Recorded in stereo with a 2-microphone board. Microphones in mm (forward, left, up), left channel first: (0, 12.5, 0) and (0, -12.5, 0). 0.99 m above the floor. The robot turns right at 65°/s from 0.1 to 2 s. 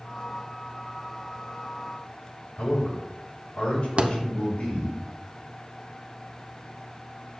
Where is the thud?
50° right (ahead or behind), 0.7 m.